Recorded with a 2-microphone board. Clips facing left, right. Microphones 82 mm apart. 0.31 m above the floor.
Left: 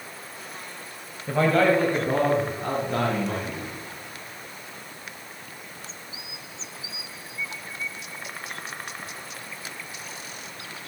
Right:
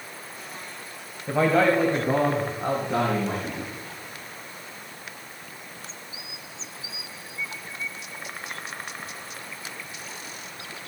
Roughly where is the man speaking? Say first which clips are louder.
Even; centre.